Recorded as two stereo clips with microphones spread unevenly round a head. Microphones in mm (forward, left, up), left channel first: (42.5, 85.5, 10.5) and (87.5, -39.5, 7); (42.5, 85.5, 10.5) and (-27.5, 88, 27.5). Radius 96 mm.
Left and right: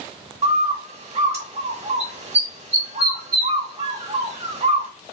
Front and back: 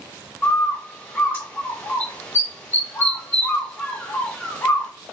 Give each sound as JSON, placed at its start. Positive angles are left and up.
{"t": 0.4, "sound": "a bird", "azimuth_deg": -55, "distance_m": 1.5}